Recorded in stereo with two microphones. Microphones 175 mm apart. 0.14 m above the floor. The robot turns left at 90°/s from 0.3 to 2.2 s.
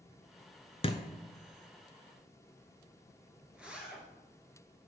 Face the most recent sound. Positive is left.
turn(degrees=-5)  # may be behind; listen again after turning